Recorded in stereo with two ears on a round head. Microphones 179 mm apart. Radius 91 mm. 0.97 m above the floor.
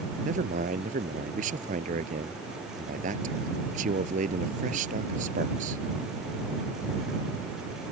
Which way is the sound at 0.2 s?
40° right (ahead or behind).